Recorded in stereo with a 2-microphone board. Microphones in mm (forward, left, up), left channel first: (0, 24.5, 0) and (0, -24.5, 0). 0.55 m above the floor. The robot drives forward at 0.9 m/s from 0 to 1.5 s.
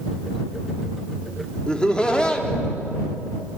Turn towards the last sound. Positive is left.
turn(degrees=20)  # may be behind; listen again after turning